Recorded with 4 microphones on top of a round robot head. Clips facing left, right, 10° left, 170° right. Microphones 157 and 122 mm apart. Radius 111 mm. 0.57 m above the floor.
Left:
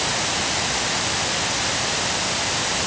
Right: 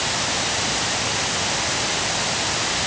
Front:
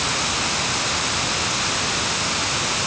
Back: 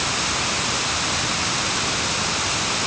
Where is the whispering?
No whispering in this recording.